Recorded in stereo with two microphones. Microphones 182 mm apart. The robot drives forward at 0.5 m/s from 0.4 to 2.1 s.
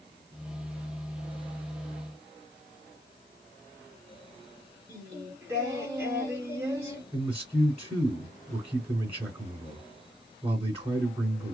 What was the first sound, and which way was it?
Singing, 15° right (ahead or behind).